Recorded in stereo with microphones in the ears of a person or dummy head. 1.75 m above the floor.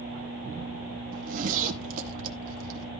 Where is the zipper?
45° right (ahead or behind), 1.9 m.